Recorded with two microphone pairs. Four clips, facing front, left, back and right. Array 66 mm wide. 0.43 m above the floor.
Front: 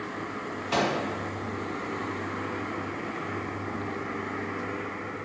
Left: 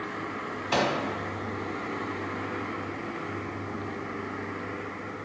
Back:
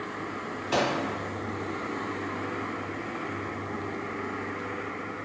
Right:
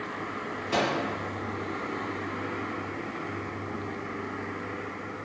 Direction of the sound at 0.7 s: 90° left.